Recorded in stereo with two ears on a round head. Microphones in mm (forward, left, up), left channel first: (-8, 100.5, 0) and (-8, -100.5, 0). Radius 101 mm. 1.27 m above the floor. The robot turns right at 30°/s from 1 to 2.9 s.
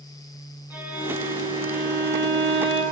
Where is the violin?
170° right, 2 m; by 2.8 s 115° right, 2 m.